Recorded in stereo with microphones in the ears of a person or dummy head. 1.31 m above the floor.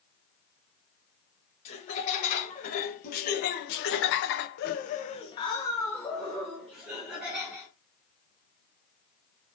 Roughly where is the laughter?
Left.